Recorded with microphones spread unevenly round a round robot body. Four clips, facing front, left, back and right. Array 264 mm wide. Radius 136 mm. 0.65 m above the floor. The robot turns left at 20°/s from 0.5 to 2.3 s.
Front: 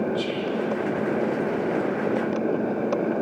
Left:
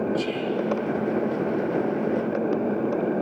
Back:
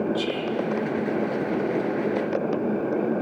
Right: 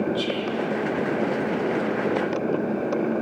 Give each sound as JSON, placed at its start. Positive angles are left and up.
{"t": 0.1, "sound": "whispering", "azimuth_deg": 165, "distance_m": 2.0}